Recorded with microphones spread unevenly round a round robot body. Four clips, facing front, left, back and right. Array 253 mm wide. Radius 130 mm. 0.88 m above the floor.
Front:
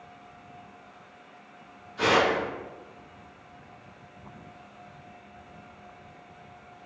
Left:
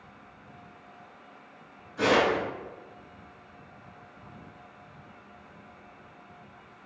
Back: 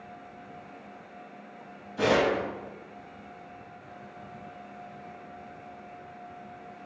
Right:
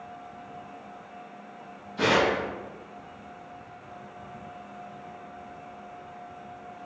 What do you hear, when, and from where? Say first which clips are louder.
2.0 s tearing paper: even, front 1 dB; 150° right, 1.5 m